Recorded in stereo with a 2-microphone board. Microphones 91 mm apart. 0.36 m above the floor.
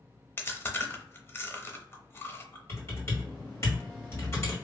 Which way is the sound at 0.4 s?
25° left (ahead or behind).